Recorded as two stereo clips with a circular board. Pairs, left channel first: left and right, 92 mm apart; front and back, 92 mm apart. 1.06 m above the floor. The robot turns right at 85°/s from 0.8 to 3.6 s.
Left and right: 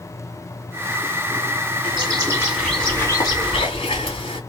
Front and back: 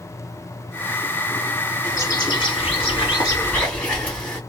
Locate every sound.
1.8 s a bird: 75° right, 1.1 m; by 4.4 s 75° left, 1.1 m